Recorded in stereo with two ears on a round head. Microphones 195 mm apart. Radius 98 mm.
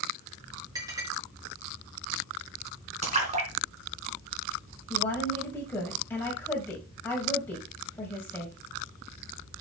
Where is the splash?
30° right (ahead or behind), 2.5 m.